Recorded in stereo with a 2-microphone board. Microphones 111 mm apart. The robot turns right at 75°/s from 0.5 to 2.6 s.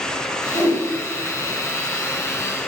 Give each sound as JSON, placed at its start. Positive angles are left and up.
{"t": 0.5, "sound": "a whoosh", "side_deg": -50, "distance_m": 1.3}